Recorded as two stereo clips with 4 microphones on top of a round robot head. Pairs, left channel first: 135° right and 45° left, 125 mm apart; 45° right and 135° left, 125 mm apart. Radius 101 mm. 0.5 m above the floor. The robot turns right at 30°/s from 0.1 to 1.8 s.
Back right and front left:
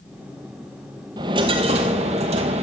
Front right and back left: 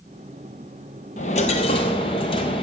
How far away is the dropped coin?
About 0.7 m.